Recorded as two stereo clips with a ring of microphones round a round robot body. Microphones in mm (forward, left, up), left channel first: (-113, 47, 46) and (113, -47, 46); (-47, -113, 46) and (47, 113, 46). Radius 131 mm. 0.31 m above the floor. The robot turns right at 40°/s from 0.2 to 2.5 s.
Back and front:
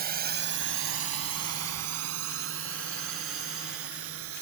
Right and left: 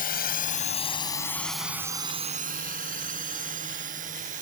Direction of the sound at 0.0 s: 65° right.